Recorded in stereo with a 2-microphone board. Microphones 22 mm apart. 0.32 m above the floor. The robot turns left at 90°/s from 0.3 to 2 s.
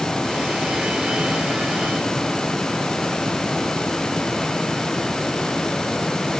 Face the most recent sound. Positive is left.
No sound to turn to.